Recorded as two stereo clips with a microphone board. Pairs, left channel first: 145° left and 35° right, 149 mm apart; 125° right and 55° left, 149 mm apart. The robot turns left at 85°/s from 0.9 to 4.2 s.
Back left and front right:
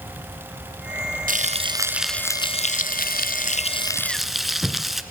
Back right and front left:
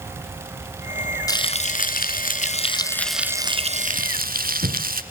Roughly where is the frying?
Ahead right.